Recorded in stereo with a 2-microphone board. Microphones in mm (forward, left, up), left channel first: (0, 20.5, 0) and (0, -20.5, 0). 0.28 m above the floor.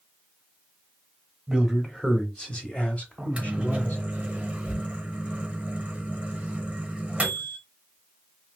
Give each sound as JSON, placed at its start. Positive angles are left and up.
{"t": 1.5, "sound": "a man speaking", "side_deg": -5, "distance_m": 1.0}
{"t": 3.2, "sound": "a microwave", "side_deg": -30, "distance_m": 0.8}